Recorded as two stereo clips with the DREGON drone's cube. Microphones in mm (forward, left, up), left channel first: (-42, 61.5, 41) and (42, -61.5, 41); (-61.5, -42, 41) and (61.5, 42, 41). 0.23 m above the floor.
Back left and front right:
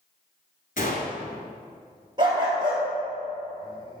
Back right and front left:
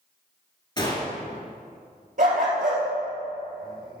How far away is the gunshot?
About 1.5 m.